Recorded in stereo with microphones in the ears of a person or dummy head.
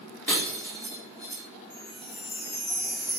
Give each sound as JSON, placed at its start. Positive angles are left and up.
{"t": 0.3, "sound": "breaking glass", "side_deg": 10, "distance_m": 2.0}
{"t": 1.7, "sound": "a chime", "side_deg": 50, "distance_m": 0.8}